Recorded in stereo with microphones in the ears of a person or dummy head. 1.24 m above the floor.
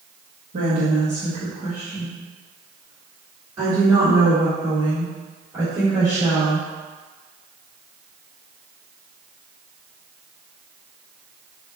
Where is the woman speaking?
40° right (ahead or behind), 1.6 m; by 6.7 s centre (ahead or behind), 4.5 m.